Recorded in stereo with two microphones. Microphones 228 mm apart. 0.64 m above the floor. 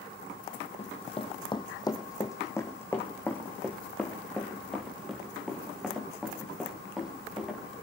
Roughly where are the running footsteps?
Left.